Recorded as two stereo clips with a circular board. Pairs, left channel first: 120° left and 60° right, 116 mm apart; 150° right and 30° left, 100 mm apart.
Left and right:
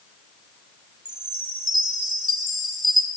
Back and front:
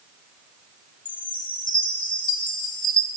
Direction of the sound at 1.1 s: 110° right.